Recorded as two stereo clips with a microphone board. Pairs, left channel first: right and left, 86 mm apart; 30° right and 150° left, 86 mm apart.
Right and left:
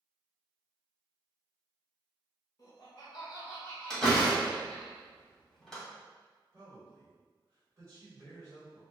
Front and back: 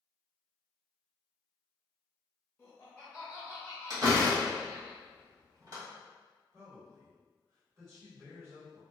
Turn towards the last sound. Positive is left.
turn(degrees=120)